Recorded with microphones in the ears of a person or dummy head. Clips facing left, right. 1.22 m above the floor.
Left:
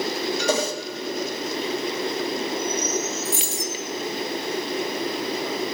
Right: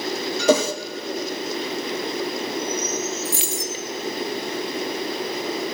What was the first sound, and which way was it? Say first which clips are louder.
A whoosh: right 8 dB; 70° right (ahead or behind).